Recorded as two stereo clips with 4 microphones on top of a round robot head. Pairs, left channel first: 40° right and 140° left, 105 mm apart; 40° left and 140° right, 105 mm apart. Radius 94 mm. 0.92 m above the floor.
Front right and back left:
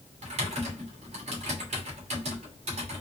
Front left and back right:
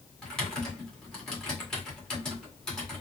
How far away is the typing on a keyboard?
About 1.7 m.